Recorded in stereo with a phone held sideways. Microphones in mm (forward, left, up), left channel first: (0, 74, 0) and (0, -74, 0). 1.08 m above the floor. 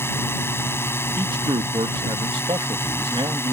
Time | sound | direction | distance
0.0 | a drone | 15° left (ahead or behind) | ?
1.2 | a man speaking | 35° right (ahead or behind) | ?